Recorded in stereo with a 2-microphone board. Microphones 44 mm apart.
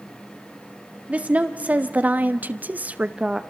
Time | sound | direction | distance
1.1 | a woman speaking | 30° right (ahead or behind) | 2 m